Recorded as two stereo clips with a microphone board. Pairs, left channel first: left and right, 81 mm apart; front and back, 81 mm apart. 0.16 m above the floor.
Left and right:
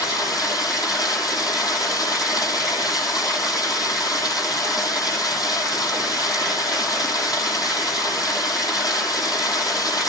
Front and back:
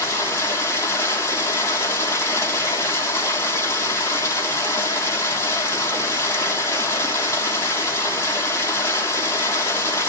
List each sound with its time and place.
0.0 s running water: 55° left, 3.5 m